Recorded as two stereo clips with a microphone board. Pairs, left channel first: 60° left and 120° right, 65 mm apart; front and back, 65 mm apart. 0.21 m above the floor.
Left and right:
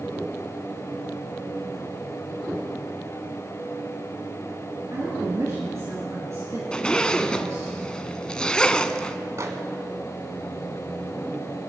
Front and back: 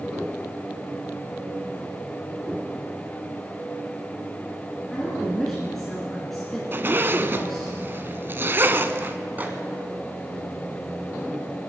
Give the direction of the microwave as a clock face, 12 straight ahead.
4 o'clock.